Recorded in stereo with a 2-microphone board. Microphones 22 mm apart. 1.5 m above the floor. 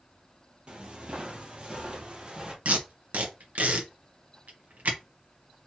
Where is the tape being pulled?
75° right (ahead or behind), 1.4 m.